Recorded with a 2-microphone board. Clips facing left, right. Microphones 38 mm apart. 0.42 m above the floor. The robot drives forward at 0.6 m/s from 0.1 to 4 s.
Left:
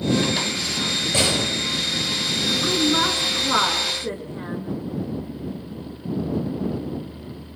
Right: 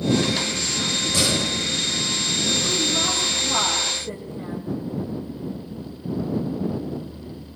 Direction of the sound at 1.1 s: 40° left (ahead or behind).